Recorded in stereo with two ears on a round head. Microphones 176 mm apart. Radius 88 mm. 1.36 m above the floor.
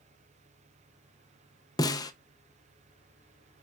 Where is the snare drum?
20° left (ahead or behind), 0.6 m.